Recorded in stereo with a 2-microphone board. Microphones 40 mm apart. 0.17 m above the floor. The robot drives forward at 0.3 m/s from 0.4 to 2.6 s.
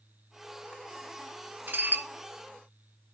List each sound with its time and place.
1.7 s dishes clattering: 55° right (ahead or behind), 1.3 m